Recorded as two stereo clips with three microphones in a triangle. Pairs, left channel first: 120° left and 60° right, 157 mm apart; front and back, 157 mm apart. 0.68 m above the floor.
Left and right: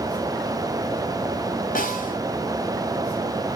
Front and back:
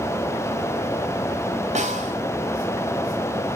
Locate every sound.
1.8 s a snare drum: 140° left, 4 m